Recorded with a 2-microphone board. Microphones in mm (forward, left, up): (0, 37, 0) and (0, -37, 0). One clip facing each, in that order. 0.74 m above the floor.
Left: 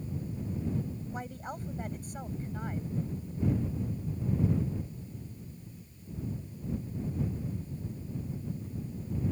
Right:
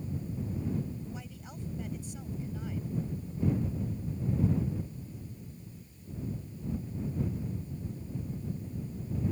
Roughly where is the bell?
No bell in this recording.